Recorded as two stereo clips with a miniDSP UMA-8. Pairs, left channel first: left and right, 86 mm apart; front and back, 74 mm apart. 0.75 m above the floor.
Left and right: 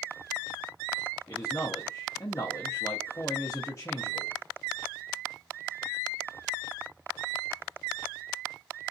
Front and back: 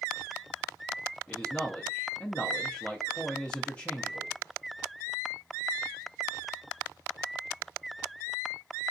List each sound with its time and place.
1.3 s a man speaking: 65° left, 0.5 m